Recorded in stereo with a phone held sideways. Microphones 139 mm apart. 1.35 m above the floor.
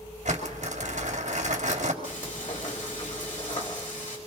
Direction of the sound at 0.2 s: 65° right (ahead or behind).